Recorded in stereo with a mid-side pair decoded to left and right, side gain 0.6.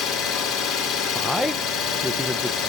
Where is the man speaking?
5° left, 0.6 m.